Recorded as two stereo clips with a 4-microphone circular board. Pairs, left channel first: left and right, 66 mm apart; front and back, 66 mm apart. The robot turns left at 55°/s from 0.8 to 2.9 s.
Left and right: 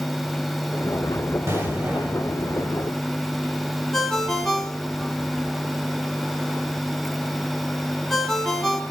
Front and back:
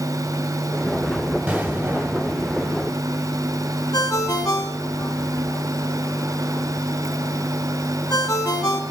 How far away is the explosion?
About 1.9 m.